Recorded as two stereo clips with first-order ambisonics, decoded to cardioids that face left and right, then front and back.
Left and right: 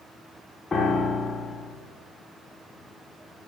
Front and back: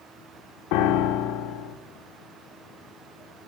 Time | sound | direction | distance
0.7 | a piano | 15° left | 0.7 m